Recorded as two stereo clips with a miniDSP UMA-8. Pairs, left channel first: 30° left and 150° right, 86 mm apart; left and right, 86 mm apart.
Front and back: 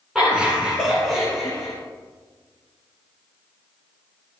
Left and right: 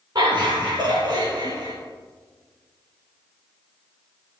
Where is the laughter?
65° right, 2.5 m; by 1.7 s 40° right, 4.5 m.